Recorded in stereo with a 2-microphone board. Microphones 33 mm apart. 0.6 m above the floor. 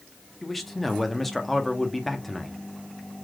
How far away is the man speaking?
About 0.8 m.